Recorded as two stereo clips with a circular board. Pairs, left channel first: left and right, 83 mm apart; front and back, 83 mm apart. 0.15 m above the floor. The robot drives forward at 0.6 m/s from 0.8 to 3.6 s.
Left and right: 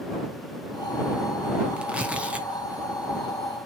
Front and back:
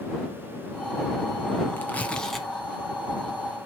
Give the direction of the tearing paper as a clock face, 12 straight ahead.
1 o'clock.